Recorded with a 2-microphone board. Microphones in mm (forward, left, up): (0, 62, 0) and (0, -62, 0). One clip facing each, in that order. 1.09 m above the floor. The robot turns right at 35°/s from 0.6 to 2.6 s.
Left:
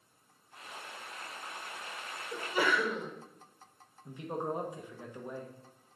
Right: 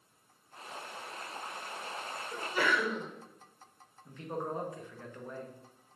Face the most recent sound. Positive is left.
turn(degrees=15)  # may be behind; listen again after turning